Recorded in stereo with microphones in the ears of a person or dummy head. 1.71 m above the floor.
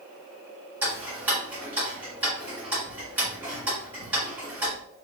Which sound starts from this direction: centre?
Ticking, at 0.8 s.